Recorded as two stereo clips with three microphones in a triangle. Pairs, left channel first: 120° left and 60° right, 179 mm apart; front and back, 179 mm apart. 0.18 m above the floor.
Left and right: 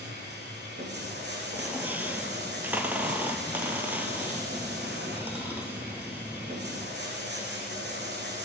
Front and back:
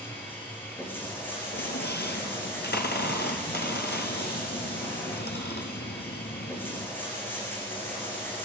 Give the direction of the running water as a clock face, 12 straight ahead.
3 o'clock.